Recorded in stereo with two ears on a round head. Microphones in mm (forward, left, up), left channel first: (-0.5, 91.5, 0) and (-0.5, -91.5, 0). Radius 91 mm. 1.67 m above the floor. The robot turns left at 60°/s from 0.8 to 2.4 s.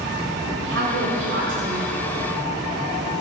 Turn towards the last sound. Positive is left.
turn(degrees=-170)